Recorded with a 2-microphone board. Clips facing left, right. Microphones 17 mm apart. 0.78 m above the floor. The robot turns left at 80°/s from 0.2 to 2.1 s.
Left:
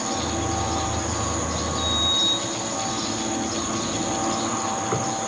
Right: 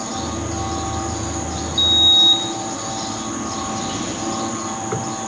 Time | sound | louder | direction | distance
1.8 | a sliding door | right 10 dB | 60° right (ahead or behind) | 1.3 m